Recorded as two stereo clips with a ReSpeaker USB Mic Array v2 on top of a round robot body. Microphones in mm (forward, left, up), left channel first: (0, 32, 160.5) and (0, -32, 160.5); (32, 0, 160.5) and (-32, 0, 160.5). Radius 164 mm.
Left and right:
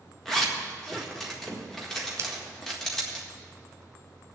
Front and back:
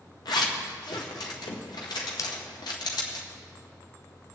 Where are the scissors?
40° right, 0.7 m.